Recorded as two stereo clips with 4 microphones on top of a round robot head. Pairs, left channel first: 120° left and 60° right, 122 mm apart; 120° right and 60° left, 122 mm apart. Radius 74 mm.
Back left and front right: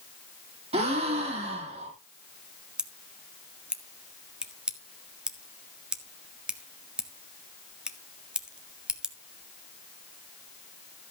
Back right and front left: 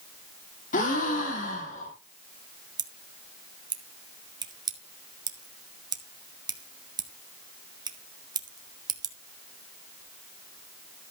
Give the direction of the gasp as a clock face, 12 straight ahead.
3 o'clock.